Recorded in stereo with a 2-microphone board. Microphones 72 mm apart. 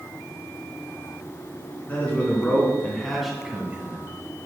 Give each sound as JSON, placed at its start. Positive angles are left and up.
{"t": 1.9, "sound": "a man speaking", "side_deg": 20, "distance_m": 3.0}